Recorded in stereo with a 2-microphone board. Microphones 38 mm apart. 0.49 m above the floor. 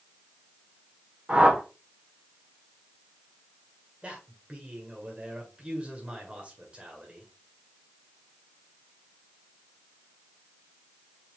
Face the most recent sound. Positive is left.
turn(degrees=-30)  # may be behind; listen again after turning